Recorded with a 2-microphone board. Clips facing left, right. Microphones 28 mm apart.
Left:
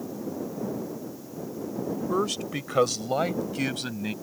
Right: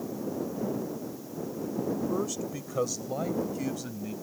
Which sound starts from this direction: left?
A man speaking, at 2.1 s.